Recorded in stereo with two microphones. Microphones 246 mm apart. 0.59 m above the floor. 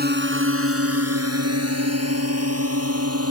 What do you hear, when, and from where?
0.0 s a drone: 40° right (ahead or behind); by 3.3 s 70° right (ahead or behind)